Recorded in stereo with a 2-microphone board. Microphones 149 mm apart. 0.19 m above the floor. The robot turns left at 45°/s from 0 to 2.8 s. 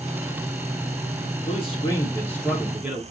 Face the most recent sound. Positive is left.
turn(degrees=-10)